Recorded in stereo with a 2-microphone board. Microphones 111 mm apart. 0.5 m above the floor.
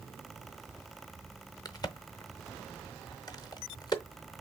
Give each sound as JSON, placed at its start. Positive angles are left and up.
{"t": 1.6, "sound": "a crack", "side_deg": 35, "distance_m": 0.6}